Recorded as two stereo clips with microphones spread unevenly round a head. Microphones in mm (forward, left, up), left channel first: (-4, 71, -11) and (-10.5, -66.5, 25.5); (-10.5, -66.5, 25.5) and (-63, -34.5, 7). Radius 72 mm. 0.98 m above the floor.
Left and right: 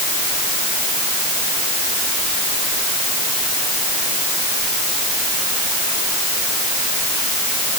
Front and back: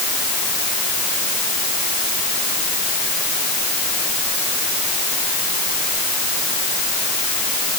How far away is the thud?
No thud in this recording.